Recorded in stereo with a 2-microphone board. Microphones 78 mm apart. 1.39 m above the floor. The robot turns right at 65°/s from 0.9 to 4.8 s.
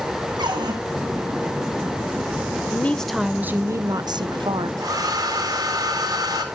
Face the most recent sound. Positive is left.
turn(degrees=-55)  # may be behind; listen again after turning